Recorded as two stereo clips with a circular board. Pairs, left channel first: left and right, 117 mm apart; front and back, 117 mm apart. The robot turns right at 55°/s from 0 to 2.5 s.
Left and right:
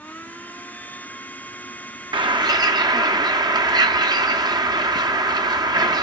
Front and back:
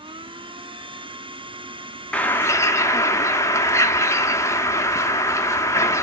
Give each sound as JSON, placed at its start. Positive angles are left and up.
{"t": 2.1, "sound": "a bird", "azimuth_deg": -75, "distance_m": 0.8}